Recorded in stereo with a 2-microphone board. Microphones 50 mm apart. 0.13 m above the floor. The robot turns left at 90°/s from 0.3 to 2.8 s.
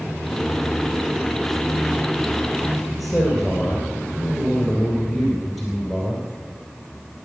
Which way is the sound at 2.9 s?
Centre (ahead or behind).